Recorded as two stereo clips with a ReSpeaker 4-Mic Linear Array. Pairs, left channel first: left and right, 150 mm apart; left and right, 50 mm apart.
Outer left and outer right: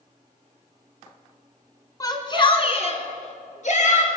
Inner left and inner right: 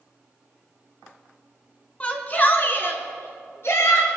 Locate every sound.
2.0 s a shout: 25° left (ahead or behind), 1.8 m; by 4.1 s 55° left (ahead or behind), 3 m